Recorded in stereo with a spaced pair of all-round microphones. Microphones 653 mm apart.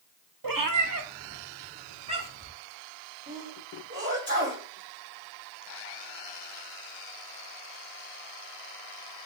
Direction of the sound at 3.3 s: 15° right (ahead or behind).